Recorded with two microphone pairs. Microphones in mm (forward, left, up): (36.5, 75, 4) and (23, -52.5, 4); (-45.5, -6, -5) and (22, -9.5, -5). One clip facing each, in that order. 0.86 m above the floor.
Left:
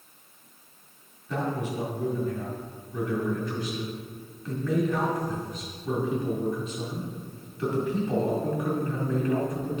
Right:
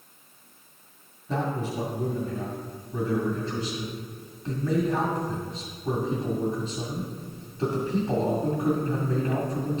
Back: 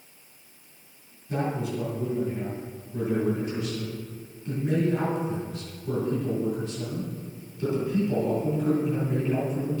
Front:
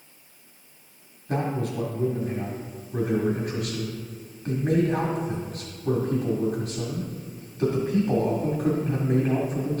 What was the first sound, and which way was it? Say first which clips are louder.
A man speaking: right 1 dB, front 1 dB; 35° right.